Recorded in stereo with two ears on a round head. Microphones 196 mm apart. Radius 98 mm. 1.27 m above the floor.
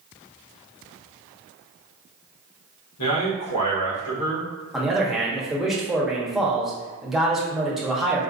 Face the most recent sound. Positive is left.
turn(degrees=0)  # may be behind; listen again after turning